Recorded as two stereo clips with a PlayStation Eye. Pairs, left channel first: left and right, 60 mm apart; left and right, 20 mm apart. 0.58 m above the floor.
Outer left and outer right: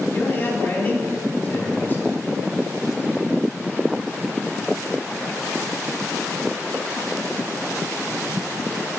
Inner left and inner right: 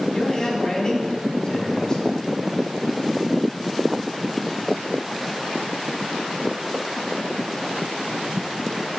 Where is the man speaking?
35° left (ahead or behind), 1.6 m.